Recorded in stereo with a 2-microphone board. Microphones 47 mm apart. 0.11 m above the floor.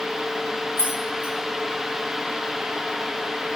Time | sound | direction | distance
0.8 | keys jangling | 70° left (ahead or behind) | 2.5 m